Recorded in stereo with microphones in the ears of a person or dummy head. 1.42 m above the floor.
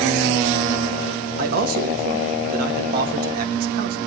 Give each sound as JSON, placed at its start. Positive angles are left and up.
{"t": 1.4, "sound": "a man speaking", "side_deg": -55, "distance_m": 1.8}